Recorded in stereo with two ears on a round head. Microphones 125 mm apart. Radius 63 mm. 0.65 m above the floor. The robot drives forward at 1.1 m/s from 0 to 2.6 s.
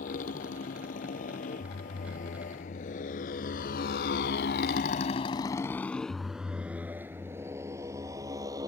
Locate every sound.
0.0 s a motorcycle: 70° left (ahead or behind); by 8.7 s 25° right (ahead or behind)